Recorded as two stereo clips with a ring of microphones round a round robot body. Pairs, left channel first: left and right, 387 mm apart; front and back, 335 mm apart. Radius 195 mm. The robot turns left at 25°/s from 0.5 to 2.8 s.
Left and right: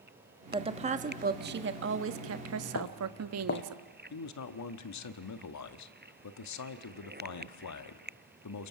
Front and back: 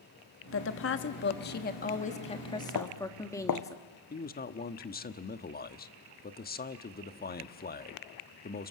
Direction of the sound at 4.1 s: 55° left.